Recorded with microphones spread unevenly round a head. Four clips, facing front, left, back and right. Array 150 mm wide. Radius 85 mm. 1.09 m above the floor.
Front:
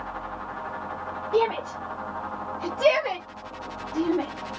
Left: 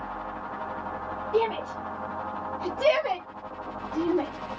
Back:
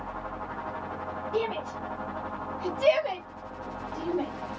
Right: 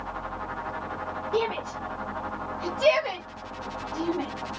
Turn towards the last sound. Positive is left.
turn(degrees=25)